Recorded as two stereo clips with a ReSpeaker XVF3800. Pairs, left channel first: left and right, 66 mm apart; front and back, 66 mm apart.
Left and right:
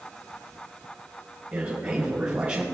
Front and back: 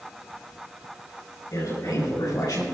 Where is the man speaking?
25° right, 4.5 m.